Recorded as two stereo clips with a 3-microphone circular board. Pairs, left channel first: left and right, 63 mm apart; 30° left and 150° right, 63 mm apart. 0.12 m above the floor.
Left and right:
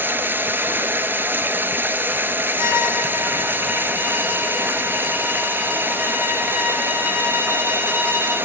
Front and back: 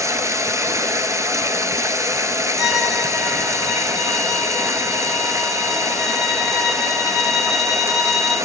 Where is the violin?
70° right, 2 m.